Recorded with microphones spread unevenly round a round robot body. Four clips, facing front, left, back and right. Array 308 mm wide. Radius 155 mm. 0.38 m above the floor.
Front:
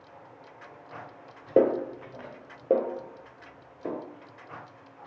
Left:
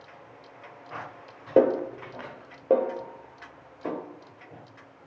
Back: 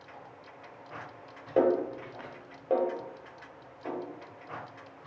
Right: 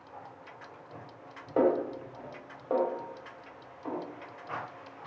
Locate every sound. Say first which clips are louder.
1.6 s a snare drum: left 5 dB, front 3 dB; 50° left, 0.8 m